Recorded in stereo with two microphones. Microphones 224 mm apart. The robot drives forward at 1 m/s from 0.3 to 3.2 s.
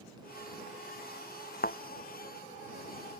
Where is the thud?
45° left (ahead or behind); by 1.8 s 40° left (ahead or behind).